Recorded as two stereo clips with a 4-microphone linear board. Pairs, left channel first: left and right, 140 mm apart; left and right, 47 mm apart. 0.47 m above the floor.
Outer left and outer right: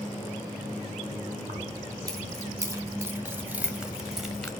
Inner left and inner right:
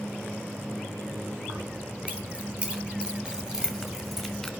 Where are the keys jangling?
30° right (ahead or behind), 2.5 m; by 4.5 s 5° left (ahead or behind), 1.6 m.